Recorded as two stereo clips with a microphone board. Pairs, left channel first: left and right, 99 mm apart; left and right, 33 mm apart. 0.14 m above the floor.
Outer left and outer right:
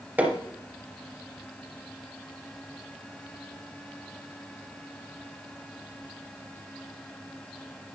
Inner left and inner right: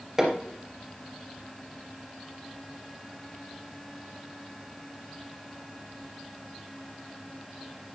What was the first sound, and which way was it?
Hammering, 15° right (ahead or behind).